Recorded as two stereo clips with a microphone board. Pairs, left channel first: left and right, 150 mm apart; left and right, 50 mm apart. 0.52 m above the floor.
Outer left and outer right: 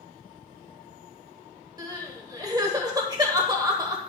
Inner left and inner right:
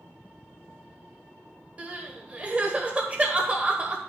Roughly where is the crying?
Right.